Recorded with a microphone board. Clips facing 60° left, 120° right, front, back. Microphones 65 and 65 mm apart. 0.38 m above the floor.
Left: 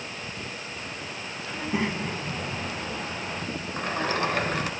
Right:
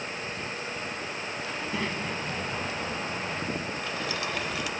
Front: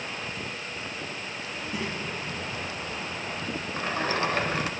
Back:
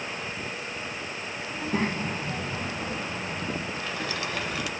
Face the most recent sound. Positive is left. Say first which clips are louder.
# left 5 dB, front 4 dB
turn(degrees=35)